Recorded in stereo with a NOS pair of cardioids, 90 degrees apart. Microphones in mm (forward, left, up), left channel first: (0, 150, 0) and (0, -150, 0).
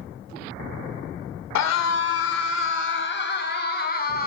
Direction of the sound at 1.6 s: 70° left.